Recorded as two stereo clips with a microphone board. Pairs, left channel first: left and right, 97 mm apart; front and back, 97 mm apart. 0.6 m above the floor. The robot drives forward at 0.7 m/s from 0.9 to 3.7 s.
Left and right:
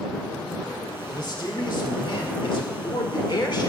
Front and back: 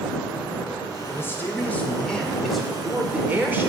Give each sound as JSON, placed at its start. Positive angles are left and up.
{"t": 1.1, "sound": "a man speaking", "azimuth_deg": 60, "distance_m": 2.0}